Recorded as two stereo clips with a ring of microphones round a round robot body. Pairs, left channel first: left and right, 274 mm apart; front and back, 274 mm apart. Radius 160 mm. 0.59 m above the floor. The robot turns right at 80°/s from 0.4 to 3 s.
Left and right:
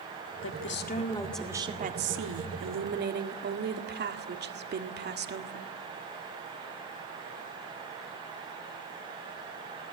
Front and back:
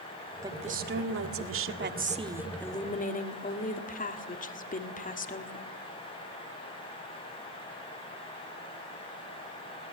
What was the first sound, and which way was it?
A woman speaking, 100° left.